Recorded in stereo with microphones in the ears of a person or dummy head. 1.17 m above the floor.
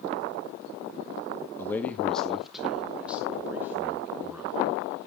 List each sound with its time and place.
1.6 s a man speaking: 15° left (ahead or behind), 1.0 m; by 4.8 s 10° right (ahead or behind), 3.5 m